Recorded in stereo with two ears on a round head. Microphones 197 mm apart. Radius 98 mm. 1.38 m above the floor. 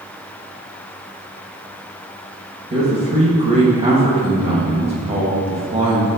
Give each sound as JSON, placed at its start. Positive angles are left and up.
{"t": 2.7, "sound": "a man speaking", "side_deg": -30, "distance_m": 2.0}